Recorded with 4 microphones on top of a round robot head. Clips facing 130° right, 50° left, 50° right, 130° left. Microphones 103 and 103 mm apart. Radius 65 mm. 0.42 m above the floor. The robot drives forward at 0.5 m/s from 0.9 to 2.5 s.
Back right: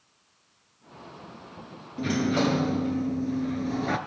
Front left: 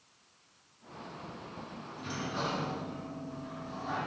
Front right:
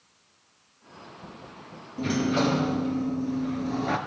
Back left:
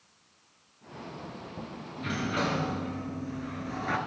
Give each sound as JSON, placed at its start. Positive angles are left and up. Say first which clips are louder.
{"t": 2.0, "sound": "a sliding door", "louder": "back right 12 dB, front right 7 dB", "azimuth_deg": -105, "distance_m": 1.4}